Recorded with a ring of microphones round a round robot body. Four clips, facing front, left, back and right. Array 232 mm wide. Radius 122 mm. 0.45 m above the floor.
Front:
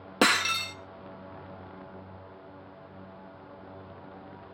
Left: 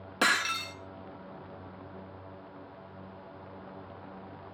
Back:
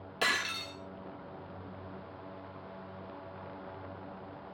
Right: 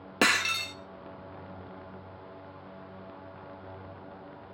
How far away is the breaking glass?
About 1.2 m.